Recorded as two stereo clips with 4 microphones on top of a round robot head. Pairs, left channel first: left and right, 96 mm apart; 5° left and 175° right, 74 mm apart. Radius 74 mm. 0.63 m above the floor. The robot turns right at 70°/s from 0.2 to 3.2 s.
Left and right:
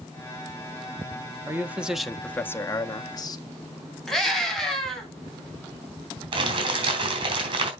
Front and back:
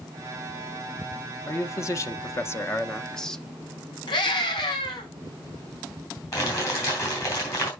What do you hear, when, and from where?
1.5 s a man speaking: 40° right, 0.8 m; by 3.5 s 85° left, 0.8 m
4.1 s a scream: 5° left, 4.5 m
6.3 s crumpling: 55° right, 4 m